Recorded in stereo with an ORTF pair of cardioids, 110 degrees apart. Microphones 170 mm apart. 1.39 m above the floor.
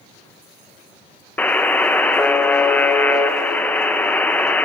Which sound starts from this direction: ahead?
A buzzer, at 1.4 s.